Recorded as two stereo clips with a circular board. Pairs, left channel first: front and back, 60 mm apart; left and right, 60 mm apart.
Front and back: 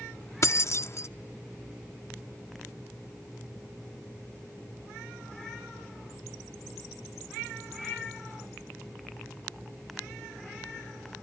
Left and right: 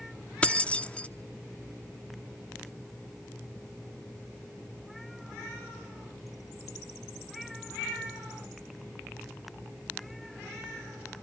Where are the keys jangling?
25° left, 0.5 m.